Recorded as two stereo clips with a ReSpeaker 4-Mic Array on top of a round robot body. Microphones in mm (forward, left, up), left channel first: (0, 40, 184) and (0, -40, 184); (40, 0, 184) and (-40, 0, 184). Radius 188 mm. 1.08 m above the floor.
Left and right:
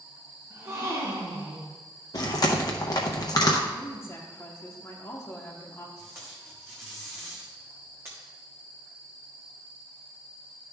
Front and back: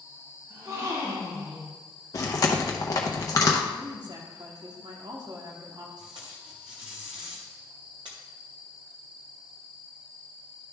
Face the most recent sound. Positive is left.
turn(degrees=-155)